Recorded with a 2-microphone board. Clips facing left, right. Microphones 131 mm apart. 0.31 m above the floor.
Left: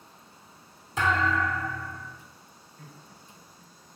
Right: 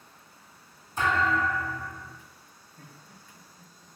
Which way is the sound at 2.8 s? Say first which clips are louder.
Left 1 dB; 35° right (ahead or behind).